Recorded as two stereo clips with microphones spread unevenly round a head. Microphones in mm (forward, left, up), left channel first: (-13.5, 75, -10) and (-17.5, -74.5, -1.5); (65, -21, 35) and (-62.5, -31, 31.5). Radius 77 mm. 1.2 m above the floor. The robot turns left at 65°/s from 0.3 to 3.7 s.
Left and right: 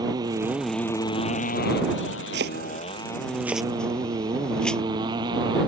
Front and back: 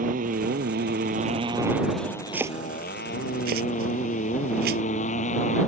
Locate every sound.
0.0 s a motorcycle: 155° right; by 5.7 s 30° right
2.3 s chopping: 100° right; by 4.8 s 175° left